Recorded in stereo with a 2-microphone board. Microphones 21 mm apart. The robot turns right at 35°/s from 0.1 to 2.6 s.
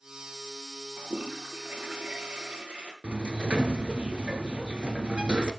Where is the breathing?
I don't hear breathing.